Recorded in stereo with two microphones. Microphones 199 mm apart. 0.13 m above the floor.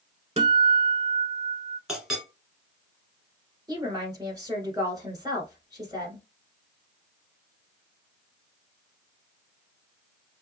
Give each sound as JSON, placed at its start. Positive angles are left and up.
{"t": 0.4, "sound": "a guitar", "side_deg": -35, "distance_m": 0.6}
{"t": 1.9, "sound": "a clink", "side_deg": 0, "distance_m": 1.3}
{"t": 3.7, "sound": "a woman speaking", "side_deg": -20, "distance_m": 1.3}